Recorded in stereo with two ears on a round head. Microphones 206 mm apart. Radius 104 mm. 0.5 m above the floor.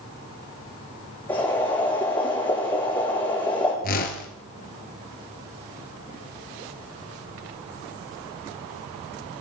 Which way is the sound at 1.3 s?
10° left (ahead or behind).